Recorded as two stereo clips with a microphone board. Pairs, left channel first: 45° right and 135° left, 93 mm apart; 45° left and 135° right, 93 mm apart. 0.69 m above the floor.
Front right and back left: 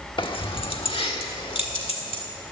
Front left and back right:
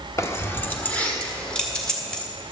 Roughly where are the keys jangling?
Ahead.